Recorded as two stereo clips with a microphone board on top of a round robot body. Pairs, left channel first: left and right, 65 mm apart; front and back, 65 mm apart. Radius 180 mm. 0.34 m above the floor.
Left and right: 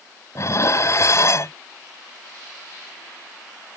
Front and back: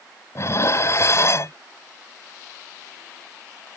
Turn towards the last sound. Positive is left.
turn(degrees=50)